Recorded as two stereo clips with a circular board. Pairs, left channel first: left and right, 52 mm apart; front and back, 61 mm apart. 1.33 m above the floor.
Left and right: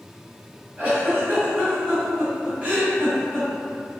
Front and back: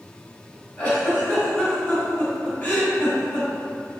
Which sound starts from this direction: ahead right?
A giggle, at 0.8 s.